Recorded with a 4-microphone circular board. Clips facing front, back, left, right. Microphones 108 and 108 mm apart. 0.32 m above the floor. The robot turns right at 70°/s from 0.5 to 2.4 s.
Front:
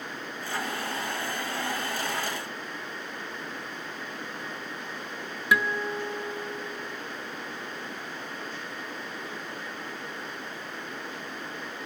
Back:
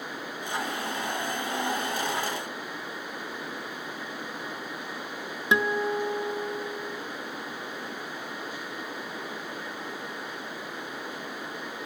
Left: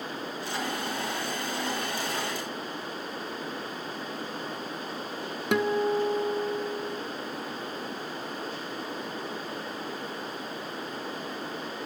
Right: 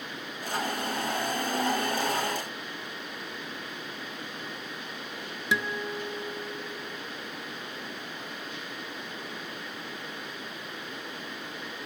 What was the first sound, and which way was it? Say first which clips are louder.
A guitar: back 2 dB, left 7 dB; 115° left.